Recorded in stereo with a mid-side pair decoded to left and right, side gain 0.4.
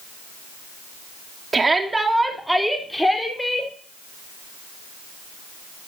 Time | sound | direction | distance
1.5 | a shout | 35° right | 3 m